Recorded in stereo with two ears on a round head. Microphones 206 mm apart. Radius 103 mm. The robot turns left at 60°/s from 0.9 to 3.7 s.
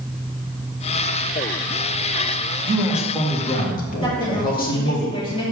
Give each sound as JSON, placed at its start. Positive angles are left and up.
{"t": 2.7, "sound": "a man speaking", "azimuth_deg": -160, "distance_m": 1.7}
{"t": 4.0, "sound": "a woman speaking", "side_deg": 25, "distance_m": 2.0}